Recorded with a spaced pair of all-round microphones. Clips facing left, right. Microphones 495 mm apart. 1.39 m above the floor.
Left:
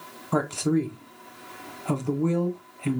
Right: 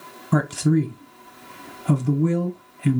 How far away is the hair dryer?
I don't hear a hair dryer.